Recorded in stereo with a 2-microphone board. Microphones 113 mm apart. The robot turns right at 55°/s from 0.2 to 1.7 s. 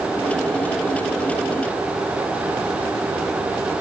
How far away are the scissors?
No scissors in this recording.